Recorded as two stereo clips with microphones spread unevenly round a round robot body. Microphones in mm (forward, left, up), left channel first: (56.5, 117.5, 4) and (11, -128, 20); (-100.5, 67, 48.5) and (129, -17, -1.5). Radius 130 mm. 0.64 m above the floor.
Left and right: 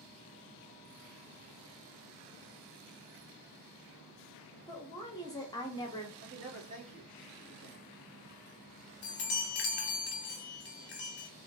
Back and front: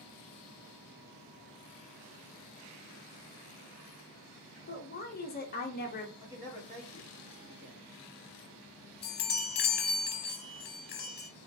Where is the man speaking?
85° right, 1.6 m.